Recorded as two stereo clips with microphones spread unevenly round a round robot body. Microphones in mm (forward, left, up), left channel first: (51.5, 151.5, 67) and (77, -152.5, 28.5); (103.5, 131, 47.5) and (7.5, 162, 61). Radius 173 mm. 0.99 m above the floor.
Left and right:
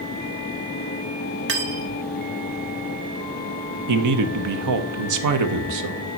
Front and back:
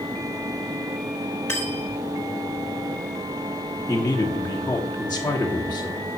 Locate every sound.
1.5 s cutlery clinking: 145° right, 1.0 m
3.9 s a man speaking: 90° right, 1.1 m